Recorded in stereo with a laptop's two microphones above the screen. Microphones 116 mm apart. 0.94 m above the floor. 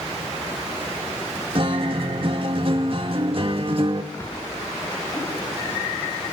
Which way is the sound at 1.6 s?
50° right (ahead or behind).